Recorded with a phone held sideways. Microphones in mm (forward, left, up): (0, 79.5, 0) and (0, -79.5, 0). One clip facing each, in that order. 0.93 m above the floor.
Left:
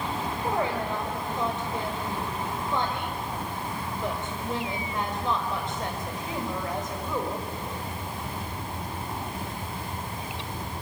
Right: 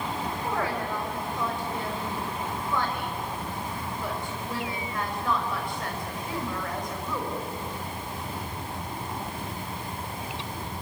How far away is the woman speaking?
About 4.5 m.